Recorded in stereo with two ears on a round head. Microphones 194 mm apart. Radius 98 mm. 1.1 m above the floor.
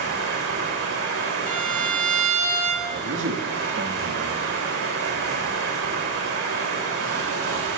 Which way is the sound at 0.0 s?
70° right (ahead or behind).